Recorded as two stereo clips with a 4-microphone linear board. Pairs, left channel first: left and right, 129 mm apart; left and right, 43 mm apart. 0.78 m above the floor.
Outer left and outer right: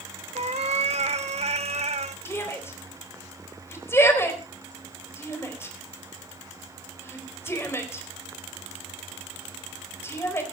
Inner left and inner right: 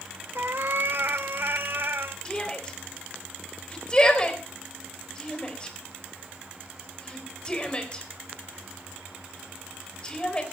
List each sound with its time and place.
0.3 s a cat meowing: 55° right (ahead or behind), 1.1 m
2.2 s a shout: 20° left (ahead or behind), 4 m